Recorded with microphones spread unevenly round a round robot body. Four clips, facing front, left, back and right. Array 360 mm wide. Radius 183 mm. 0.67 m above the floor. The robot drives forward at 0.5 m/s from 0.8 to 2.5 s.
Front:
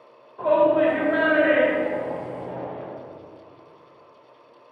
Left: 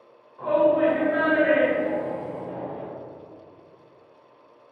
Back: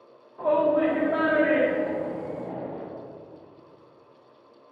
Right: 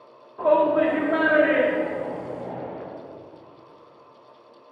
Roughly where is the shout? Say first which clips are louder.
Right 1 dB, front 4 dB; right.